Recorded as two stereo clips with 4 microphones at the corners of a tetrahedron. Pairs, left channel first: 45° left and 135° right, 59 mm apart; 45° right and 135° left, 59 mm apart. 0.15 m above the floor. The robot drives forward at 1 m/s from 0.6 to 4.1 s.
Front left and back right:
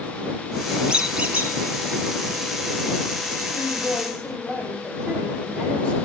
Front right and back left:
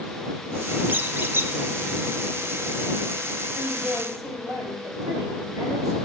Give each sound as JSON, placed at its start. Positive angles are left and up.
{"t": 0.9, "sound": "a squeak", "azimuth_deg": 160, "distance_m": 1.1}
{"t": 3.5, "sound": "a woman speaking", "azimuth_deg": 110, "distance_m": 7.5}